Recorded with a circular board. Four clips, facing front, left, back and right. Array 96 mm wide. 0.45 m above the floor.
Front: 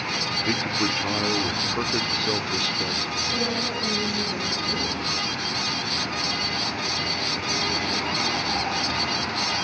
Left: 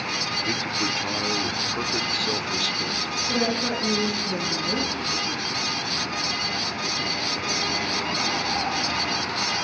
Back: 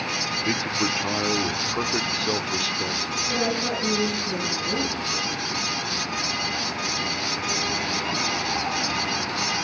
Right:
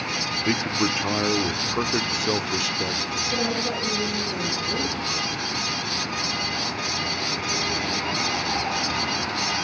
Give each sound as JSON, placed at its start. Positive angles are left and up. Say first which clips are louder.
{"t": 0.5, "sound": "a man speaking", "louder": "right 6 dB, even", "azimuth_deg": -100, "distance_m": 0.7}
{"t": 3.3, "sound": "a woman speaking", "louder": "left 2 dB, back 4 dB", "azimuth_deg": 115, "distance_m": 8.5}